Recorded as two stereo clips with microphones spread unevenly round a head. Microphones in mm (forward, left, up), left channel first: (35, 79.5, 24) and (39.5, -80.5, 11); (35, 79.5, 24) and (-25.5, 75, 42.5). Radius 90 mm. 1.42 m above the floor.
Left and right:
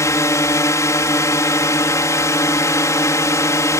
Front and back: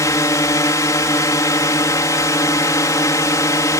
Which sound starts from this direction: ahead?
A drone, at 0.0 s.